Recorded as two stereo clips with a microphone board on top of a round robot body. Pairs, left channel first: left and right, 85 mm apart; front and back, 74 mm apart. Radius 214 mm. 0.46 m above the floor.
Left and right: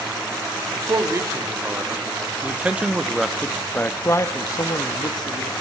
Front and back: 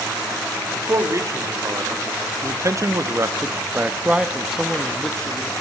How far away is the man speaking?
About 2.5 m.